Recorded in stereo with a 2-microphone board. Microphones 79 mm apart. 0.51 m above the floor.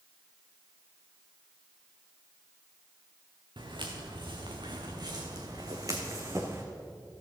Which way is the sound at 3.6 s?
75° right (ahead or behind).